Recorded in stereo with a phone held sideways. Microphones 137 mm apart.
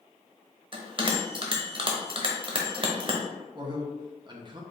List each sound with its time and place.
0.7 s a bell: 40° right (ahead or behind), 0.8 m
3.5 s a man speaking: 35° right (ahead or behind), 0.8 m